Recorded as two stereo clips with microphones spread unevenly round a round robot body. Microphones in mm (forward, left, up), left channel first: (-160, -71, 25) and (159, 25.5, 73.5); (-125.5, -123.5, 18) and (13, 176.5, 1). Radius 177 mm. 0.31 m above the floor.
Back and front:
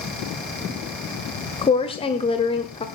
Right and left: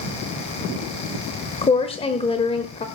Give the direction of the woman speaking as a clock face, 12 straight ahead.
6 o'clock.